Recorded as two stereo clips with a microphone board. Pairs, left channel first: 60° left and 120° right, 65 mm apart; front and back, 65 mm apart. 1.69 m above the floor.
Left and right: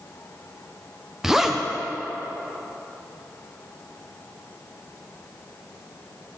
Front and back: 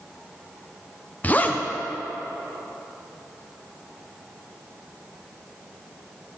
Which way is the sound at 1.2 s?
45° right.